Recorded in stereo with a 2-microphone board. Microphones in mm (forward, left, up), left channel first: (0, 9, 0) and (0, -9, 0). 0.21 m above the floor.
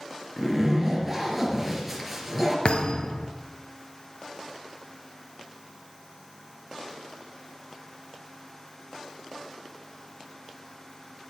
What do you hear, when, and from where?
0.4 s a zipper: 5° right (ahead or behind), 3.5 m
2.6 s a thud: 70° left (ahead or behind), 1.5 m